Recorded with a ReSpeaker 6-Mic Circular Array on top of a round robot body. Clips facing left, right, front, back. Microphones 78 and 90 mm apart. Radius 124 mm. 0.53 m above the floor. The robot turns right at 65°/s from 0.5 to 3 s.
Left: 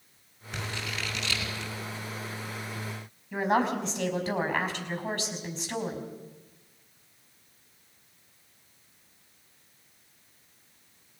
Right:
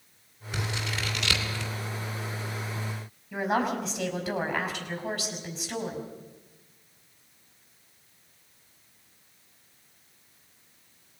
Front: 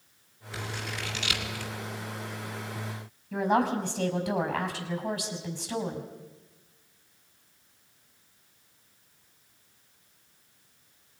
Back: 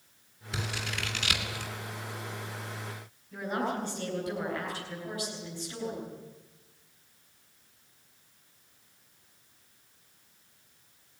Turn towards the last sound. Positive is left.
turn(degrees=0)